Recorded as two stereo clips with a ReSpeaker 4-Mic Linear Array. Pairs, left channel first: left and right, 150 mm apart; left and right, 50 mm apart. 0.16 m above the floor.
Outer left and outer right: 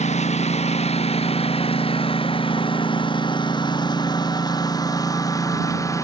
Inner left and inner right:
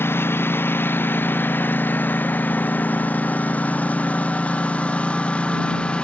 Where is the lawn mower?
50° left (ahead or behind); by 6.0 s 20° left (ahead or behind).